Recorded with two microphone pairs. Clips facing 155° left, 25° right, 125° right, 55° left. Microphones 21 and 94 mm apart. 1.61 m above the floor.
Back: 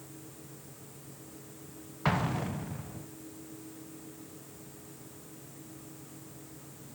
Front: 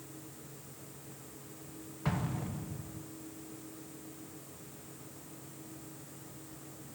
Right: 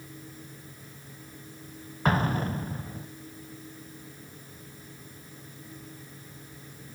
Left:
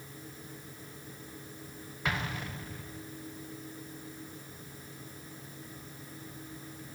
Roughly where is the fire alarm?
No fire alarm in this recording.